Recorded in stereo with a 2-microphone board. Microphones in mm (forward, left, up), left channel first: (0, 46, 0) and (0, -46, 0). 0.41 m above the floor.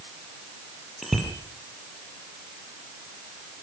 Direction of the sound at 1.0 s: Centre (ahead or behind).